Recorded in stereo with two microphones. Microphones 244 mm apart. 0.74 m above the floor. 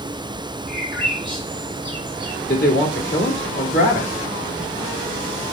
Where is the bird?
45° left (ahead or behind), 3 m.